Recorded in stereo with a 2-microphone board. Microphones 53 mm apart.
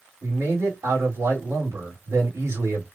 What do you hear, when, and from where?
0.2 s a man speaking: 80° right, 2 m